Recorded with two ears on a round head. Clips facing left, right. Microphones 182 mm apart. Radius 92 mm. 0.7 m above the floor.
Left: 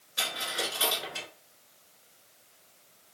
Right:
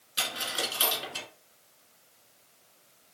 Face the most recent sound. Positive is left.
turn(degrees=-45)  # may be behind; listen again after turning